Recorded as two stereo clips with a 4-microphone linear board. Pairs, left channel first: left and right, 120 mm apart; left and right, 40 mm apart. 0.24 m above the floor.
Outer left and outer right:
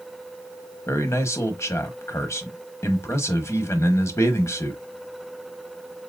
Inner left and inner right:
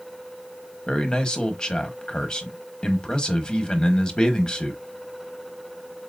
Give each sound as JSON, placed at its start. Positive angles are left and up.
{"t": 0.9, "sound": "a man speaking", "side_deg": 25, "distance_m": 1.0}